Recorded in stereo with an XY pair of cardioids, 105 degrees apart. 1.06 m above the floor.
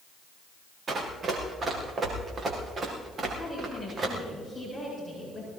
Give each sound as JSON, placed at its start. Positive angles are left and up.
{"t": 0.9, "sound": "running footsteps", "azimuth_deg": -40, "distance_m": 5.0}
{"t": 3.4, "sound": "a woman speaking", "azimuth_deg": 5, "distance_m": 8.0}